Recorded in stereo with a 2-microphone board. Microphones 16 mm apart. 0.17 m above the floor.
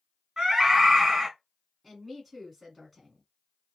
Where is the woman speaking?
Centre (ahead or behind), 1.6 m.